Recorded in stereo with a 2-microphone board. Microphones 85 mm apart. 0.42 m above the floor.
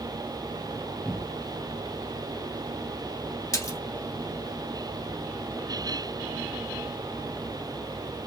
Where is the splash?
40° left (ahead or behind), 1.2 m.